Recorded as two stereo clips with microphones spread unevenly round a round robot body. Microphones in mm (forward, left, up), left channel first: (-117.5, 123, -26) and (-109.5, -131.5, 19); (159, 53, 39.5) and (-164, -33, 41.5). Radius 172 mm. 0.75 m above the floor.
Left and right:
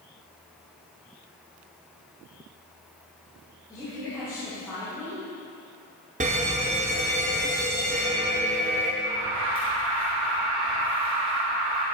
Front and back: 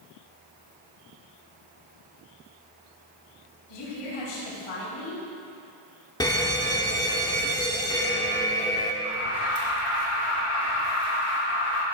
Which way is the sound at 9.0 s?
30° right.